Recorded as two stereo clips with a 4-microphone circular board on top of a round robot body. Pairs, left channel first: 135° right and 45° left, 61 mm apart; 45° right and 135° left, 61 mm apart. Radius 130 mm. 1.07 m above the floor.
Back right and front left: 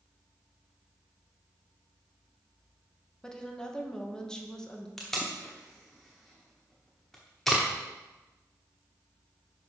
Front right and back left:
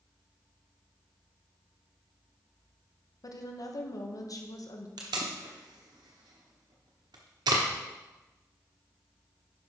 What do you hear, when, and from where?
3.2 s a woman speaking: 60° right, 1.4 m
5.0 s tape being pulled: 140° left, 1.0 m